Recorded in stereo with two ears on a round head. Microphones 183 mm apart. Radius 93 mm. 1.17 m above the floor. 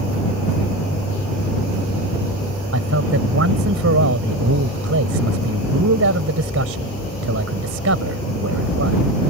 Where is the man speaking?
70° right (ahead or behind).